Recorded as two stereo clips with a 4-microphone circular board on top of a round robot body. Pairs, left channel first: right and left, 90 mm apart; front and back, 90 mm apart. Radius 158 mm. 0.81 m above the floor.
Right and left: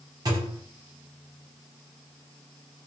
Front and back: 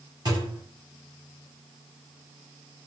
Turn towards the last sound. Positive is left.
turn(degrees=135)